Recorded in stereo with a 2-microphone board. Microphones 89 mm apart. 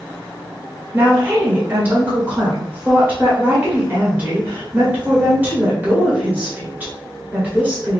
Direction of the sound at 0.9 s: 20° right (ahead or behind).